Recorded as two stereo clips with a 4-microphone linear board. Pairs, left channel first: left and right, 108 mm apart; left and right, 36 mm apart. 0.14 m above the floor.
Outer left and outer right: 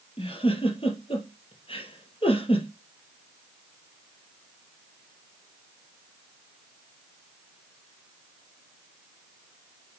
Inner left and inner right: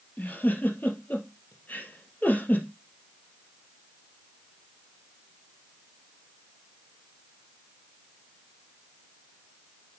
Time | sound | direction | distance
0.2 | a giggle | 60° left (ahead or behind) | 3 m